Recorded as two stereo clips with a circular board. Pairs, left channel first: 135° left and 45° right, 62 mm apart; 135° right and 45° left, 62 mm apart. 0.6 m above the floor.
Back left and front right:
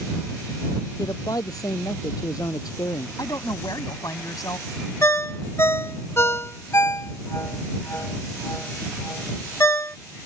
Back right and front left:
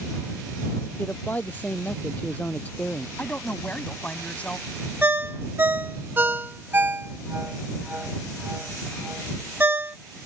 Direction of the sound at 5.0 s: 100° left.